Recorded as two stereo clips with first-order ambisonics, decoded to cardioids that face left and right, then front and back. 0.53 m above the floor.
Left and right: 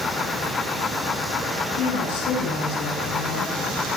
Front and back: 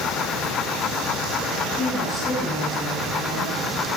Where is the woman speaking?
75° left, 8 m; by 3.6 s 85° left, 8 m.